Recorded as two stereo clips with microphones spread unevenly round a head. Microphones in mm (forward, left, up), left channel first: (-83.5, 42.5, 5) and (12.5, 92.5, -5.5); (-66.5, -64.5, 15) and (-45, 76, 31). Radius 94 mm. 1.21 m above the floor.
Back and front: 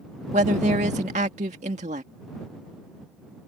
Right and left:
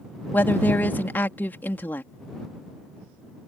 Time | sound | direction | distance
0.3 | a woman speaking | 20° right | ?